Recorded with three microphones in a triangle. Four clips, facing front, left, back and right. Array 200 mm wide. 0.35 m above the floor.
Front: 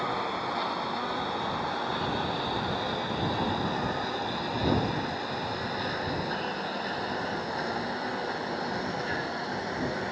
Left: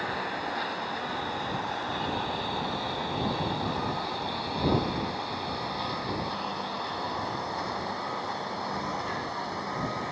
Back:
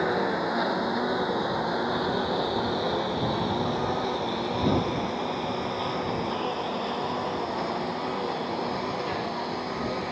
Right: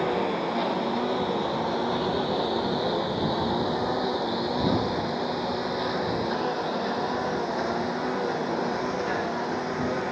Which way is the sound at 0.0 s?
130° right.